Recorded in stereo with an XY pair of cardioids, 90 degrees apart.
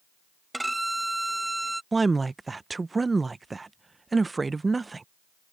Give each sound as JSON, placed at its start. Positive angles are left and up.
{"t": 0.5, "sound": "a violin", "azimuth_deg": -10}
{"t": 1.9, "sound": "a woman speaking", "azimuth_deg": -25}